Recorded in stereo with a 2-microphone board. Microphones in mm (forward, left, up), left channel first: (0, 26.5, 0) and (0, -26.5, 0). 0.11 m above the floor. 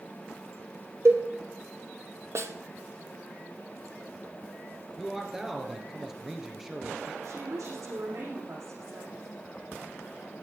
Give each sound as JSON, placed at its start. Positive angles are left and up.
{"t": 1.1, "sound": "a cowbell", "side_deg": -60, "distance_m": 1.7}
{"t": 2.4, "sound": "a snare drum", "side_deg": -60, "distance_m": 1.0}
{"t": 5.0, "sound": "a man speaking", "side_deg": -10, "distance_m": 2.5}
{"t": 7.2, "sound": "a woman speaking", "side_deg": -75, "distance_m": 7.0}